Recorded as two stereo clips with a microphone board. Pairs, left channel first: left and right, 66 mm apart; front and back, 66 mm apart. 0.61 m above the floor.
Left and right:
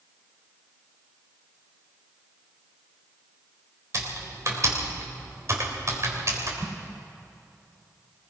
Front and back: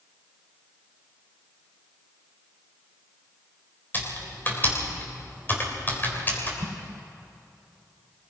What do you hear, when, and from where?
3.9 s typing on a keyboard: 55° right, 3.5 m
6.6 s an explosion: 170° left, 1.1 m